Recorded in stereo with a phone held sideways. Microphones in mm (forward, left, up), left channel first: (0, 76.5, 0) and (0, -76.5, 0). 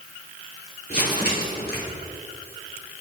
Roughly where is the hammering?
No hammering in this recording.